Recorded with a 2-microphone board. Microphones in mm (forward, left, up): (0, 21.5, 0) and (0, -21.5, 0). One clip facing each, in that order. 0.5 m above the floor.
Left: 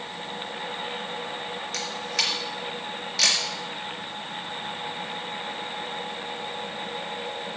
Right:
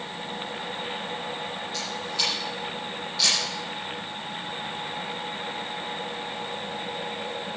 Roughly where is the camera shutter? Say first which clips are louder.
Left 2 dB; left.